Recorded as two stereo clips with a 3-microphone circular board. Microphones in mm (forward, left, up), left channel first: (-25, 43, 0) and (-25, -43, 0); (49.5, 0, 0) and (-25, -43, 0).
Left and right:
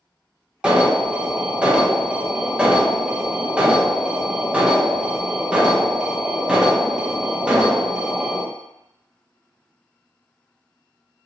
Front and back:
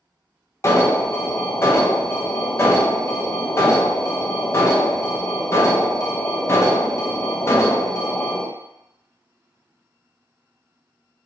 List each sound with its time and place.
0.6 s an alarm: 15° right, 0.6 m